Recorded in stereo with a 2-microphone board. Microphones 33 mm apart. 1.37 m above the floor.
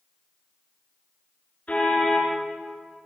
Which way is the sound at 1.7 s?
50° left (ahead or behind).